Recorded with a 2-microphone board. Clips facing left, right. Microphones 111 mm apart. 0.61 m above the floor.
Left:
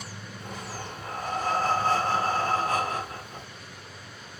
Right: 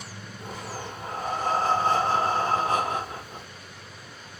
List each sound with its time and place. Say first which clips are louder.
0.4 s breathing: right 2 dB; 20° right (ahead or behind), 2.0 m